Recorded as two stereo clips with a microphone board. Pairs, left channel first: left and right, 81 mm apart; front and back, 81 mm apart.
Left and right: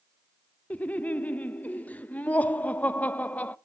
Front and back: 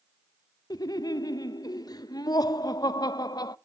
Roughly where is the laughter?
Ahead.